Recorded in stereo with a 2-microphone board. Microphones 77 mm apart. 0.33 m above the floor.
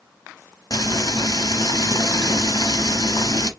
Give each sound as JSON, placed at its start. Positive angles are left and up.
{"t": 0.7, "sound": "frying", "side_deg": 65, "distance_m": 0.8}